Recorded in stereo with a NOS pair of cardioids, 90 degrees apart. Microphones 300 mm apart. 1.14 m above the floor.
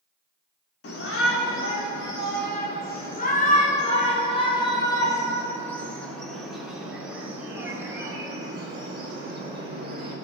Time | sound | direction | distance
0.8 | a shout | 50° left | 4 m